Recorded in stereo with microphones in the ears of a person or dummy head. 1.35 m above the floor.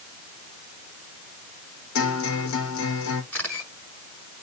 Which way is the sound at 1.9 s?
75° left (ahead or behind).